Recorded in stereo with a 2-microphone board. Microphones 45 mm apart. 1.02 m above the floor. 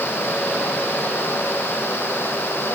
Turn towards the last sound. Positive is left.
No sound to turn to.